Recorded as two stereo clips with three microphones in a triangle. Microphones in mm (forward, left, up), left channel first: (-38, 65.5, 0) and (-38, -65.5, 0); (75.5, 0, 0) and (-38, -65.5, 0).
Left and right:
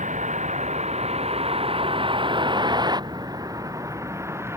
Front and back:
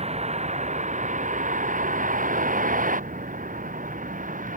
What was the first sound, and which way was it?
A vehicle, 115° right.